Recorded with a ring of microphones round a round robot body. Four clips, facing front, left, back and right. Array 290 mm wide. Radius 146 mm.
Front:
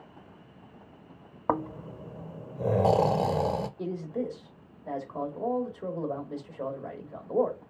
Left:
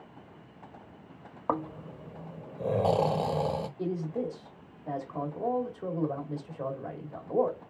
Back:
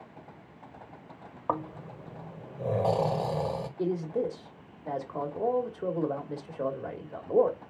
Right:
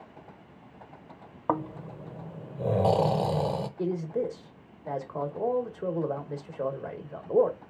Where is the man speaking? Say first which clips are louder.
Right 5 dB, back 3 dB; 130° right, 1.3 m.